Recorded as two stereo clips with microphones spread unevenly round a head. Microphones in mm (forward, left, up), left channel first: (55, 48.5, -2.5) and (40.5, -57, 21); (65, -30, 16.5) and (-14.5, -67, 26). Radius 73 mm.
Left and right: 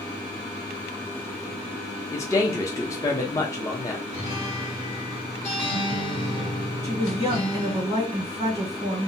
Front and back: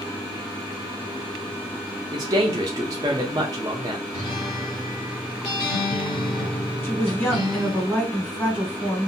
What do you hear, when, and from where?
2.1 s a man speaking: 145° left, 0.6 m
4.1 s a guitar: 70° left, 1.4 m
6.8 s a woman speaking: 50° right, 1.2 m